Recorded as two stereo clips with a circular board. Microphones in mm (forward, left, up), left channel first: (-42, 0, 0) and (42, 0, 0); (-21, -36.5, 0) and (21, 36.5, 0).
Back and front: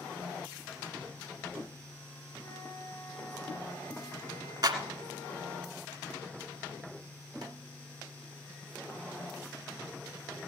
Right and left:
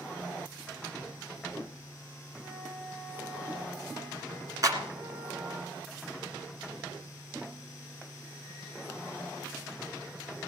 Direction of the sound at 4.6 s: 25° left.